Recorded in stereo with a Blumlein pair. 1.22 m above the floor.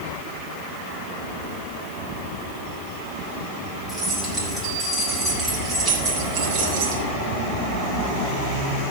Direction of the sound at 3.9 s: 5° left.